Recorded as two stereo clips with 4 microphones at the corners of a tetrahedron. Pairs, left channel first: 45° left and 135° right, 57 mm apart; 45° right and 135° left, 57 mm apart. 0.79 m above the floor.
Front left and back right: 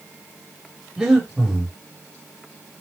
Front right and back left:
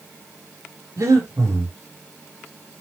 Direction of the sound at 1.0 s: 145° left.